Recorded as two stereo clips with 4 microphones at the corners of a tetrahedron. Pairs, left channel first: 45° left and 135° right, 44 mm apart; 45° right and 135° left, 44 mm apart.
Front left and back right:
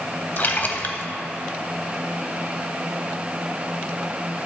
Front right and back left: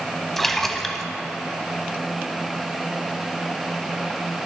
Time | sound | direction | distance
0.4 | a splash | 35° left | 0.5 m